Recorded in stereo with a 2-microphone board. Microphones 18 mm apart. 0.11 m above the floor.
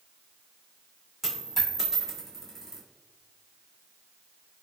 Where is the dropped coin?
20° right (ahead or behind), 1.3 m.